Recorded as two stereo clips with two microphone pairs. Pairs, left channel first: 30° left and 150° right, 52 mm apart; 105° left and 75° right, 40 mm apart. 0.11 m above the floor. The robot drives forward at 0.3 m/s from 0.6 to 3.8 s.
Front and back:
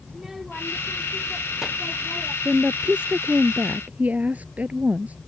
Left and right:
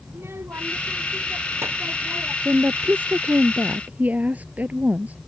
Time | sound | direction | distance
0.1 | a child speaking | 65° right | ?
2.5 | a woman speaking | 80° right | ?